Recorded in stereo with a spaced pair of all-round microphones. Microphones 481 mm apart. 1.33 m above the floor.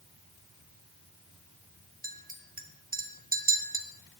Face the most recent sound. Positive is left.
turn(degrees=-15)  # may be behind; listen again after turning